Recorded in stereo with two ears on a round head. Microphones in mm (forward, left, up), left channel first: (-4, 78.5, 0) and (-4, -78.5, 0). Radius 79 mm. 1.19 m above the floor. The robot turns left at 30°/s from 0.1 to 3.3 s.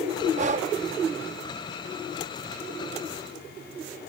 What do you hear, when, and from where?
0.4 s breathing: 45° right (ahead or behind); by 0.7 s 40° right (ahead or behind)